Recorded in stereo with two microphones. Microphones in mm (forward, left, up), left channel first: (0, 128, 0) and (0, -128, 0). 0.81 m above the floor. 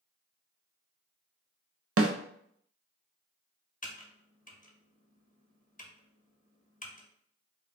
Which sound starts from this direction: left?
Typing on a keyboard, at 3.8 s.